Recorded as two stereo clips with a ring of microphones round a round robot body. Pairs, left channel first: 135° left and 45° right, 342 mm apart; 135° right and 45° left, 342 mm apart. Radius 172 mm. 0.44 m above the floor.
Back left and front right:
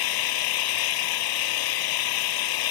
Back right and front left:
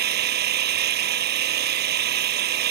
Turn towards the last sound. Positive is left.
turn(degrees=110)